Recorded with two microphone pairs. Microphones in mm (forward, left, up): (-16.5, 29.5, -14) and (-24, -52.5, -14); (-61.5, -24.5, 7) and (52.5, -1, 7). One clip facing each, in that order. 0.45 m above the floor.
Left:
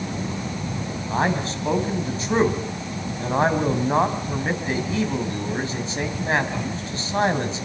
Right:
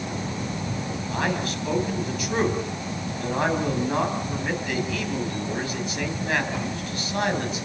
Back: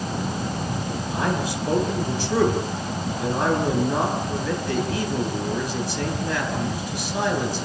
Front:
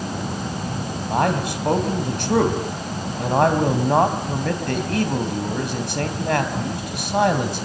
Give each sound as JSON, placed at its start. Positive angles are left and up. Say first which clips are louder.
{"t": 1.1, "sound": "a man speaking", "louder": "left 4 dB, front 5 dB", "azimuth_deg": 25, "distance_m": 3.0}